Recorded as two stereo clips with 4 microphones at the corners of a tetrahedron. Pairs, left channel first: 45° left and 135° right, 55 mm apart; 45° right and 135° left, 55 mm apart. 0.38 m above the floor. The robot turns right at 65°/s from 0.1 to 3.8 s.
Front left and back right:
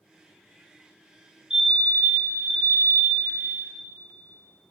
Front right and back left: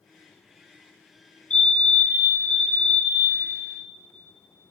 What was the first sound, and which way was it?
A fire alarm, 75° right.